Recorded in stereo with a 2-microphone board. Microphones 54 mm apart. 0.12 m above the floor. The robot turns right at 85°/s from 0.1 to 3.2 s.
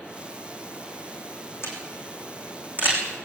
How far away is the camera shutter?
About 7 m.